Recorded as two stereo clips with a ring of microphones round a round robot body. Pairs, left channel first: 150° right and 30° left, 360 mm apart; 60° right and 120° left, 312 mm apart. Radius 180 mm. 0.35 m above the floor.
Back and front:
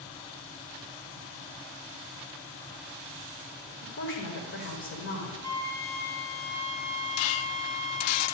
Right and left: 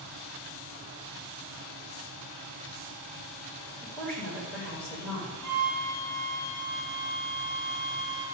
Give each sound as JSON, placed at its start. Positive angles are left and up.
{"t": 3.8, "sound": "a woman speaking", "azimuth_deg": -140, "distance_m": 1.5}
{"t": 5.4, "sound": "a flute", "azimuth_deg": -75, "distance_m": 4.0}